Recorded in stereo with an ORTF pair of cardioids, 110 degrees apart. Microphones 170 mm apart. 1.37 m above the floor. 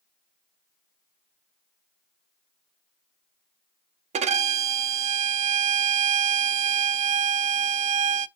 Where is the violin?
40° right, 0.6 m.